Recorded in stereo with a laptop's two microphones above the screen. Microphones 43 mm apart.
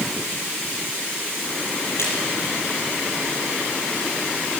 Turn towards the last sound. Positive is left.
turn(degrees=80)